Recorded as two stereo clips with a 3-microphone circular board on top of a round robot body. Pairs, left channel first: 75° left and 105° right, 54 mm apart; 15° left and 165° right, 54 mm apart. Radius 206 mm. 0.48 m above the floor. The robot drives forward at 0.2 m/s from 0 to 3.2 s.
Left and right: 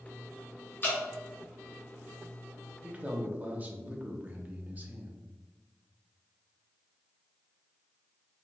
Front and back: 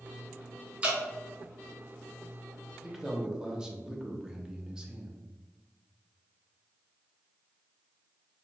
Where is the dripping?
125° left, 1.2 m; by 1.0 s 130° left, 1.2 m.